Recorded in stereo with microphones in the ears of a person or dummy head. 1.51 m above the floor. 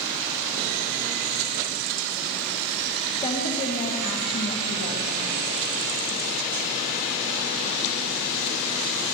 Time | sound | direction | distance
3.2 | a woman speaking | 25° left (ahead or behind) | 1.5 m